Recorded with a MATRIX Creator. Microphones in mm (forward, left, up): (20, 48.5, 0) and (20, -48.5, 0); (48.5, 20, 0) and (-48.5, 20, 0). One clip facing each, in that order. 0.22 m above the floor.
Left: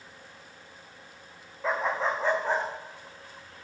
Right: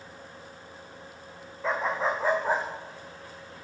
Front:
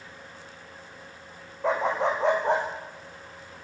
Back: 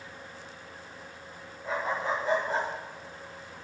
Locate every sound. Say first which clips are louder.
1.6 s a dog barking: even, front 6 dB; straight ahead, 5 m; by 2.6 s 10° right, 6 m